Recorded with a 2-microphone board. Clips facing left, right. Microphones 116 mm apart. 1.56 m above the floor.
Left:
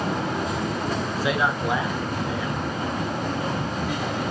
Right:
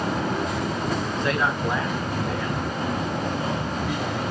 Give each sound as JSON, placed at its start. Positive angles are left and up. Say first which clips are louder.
{"t": 1.1, "sound": "a man speaking", "louder": "left 2 dB", "side_deg": 5, "distance_m": 1.4}